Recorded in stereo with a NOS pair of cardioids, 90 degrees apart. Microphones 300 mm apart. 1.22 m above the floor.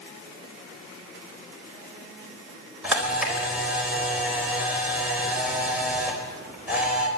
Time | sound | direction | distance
2.8 | a camera shutter | 5° right | 4.5 m